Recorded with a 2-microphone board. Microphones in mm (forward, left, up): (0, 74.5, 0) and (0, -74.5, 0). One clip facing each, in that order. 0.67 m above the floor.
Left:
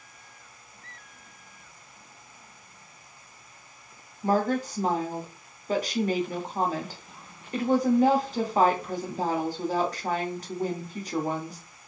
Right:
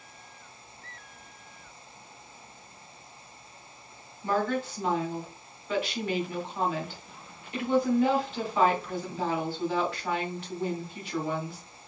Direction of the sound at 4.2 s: 40° left (ahead or behind).